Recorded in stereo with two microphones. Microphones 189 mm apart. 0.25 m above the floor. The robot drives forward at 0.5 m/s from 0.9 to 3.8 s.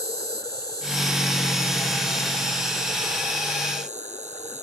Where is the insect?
55° right (ahead or behind); by 4.6 s 35° right (ahead or behind).